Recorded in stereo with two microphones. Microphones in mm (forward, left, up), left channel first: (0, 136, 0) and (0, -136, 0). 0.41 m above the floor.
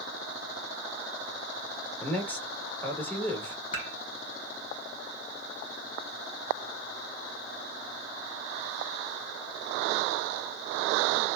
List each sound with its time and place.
2.0 s a man speaking: 5° left (ahead or behind), 0.8 m
3.7 s dishes clattering: 25° left (ahead or behind), 2.5 m